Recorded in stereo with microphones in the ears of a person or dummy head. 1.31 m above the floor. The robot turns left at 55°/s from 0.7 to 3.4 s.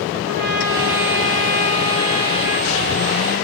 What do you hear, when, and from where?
0.2 s a trumpet: 120° right, 6.5 m; by 2.7 s 130° left, 6.5 m